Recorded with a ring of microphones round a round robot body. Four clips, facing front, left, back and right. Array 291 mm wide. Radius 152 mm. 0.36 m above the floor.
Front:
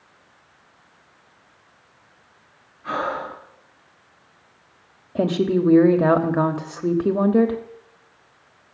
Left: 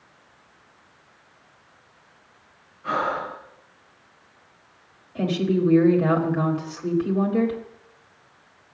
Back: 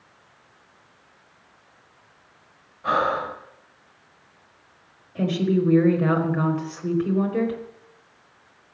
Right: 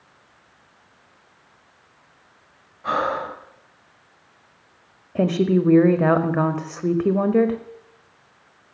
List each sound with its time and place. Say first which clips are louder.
2.8 s breathing: right 2 dB, back 3 dB; 145° right, 3 m
5.2 s a woman speaking: right 4 dB, front 2 dB; 40° right, 1.4 m